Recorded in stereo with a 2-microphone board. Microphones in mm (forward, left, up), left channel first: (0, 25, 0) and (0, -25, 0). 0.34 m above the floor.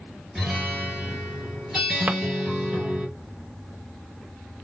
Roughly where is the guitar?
Centre.